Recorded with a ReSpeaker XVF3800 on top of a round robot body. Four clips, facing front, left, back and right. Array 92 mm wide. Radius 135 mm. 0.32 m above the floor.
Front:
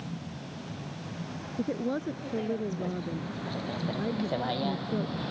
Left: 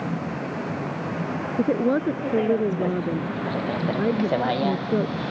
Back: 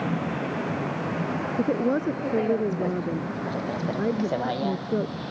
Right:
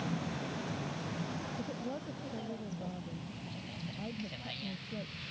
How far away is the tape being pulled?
I don't hear tape being pulled.